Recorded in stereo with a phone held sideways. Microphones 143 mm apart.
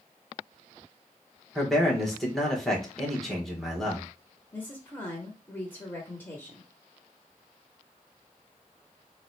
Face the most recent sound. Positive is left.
turn(degrees=15)  # may be behind; listen again after turning